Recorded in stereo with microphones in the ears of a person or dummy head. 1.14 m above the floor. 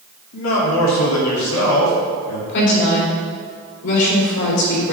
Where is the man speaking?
75° left (ahead or behind), 2.5 m; by 2.4 s 85° left, 3 m.